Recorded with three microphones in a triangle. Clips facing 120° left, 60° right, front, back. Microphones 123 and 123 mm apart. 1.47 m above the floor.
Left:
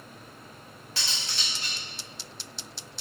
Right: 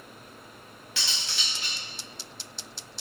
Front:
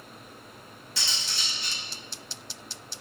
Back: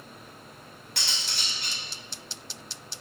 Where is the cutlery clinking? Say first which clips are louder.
Even, even; 170° left, 1.4 m.